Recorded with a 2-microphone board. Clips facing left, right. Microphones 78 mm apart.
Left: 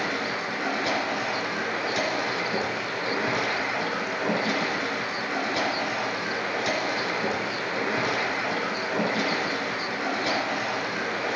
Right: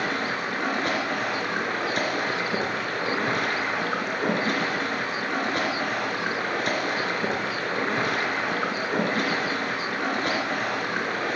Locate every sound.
0.0 s running water: 45° right (ahead or behind), 3 m